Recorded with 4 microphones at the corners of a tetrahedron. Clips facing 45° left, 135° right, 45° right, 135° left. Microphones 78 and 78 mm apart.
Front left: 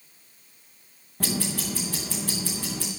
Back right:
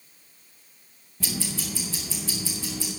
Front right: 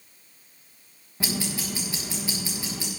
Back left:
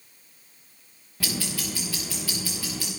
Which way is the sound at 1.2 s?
20° left.